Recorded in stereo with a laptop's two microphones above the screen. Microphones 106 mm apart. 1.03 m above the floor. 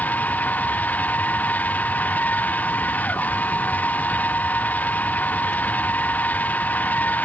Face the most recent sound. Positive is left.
turn(degrees=15)  # may be behind; listen again after turning